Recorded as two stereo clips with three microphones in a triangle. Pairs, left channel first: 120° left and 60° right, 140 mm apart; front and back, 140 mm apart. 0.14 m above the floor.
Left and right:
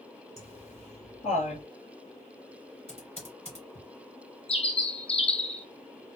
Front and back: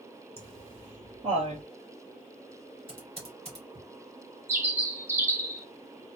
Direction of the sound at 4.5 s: 115° left.